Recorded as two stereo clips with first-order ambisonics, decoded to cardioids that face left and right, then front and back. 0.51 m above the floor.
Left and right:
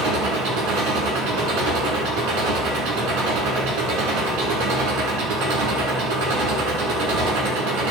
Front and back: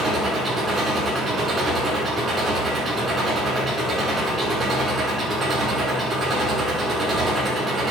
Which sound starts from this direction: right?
An engine running, at 0.0 s.